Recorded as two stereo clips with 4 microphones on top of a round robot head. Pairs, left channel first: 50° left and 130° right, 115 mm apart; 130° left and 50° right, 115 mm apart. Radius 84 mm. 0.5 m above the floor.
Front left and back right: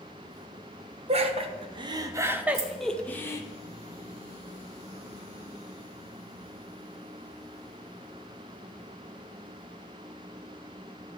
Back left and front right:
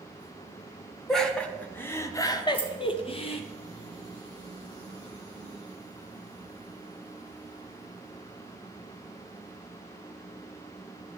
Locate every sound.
1.1 s laughter: 145° right, 1.6 m; by 3.4 s 110° left, 1.3 m
2.5 s keys jangling: 155° right, 2 m